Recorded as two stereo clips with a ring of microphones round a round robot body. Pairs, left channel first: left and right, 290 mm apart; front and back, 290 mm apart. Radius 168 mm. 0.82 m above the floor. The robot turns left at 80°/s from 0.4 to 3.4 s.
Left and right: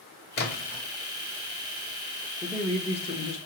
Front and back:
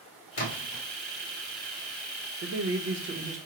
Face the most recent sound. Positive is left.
turn(degrees=115)